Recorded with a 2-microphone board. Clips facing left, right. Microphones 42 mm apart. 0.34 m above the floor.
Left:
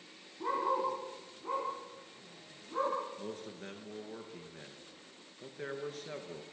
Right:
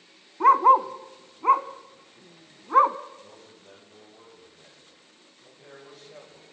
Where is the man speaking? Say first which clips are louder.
Left 6 dB; 65° left (ahead or behind), 5.5 m.